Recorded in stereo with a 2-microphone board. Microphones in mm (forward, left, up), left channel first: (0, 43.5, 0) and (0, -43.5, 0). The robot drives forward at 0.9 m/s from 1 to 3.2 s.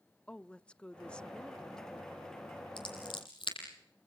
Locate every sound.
0.3 s a woman speaking: 10° left (ahead or behind), 0.6 m; by 2.7 s 5° left (ahead or behind), 1.8 m
2.8 s scissors: 70° left (ahead or behind), 8 m; by 3.6 s 75° left (ahead or behind), 7.5 m